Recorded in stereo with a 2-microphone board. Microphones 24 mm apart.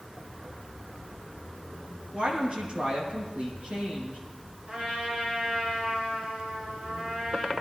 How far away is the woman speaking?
About 5.5 m.